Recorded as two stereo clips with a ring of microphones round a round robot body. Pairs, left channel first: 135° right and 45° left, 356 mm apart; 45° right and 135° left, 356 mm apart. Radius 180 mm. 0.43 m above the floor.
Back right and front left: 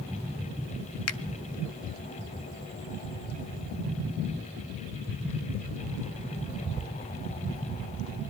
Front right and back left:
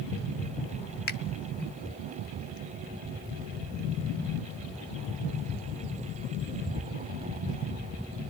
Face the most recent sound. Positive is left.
turn(degrees=-100)